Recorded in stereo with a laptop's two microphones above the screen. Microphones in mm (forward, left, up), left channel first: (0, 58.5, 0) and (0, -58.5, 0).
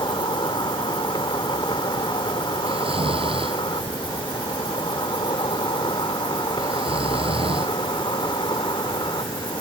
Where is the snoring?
50° right (ahead or behind).